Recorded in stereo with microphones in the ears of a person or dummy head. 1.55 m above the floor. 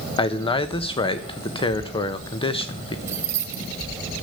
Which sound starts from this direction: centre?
Keys jangling, at 3.1 s.